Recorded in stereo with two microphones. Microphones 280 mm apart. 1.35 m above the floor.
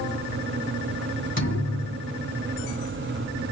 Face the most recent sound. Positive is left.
turn(degrees=40)  # may be behind; listen again after turning